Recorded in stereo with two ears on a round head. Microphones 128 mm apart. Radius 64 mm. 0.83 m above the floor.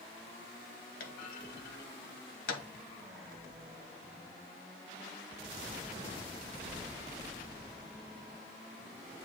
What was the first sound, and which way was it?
A clunk, 70° left (ahead or behind).